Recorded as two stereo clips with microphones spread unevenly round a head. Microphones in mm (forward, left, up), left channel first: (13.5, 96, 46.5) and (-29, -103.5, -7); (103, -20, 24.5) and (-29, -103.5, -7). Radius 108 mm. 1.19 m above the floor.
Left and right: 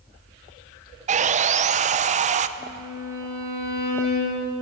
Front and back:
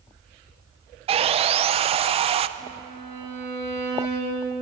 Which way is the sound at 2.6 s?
175° right.